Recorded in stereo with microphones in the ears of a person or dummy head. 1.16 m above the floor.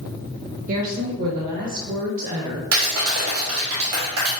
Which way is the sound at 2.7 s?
80° right.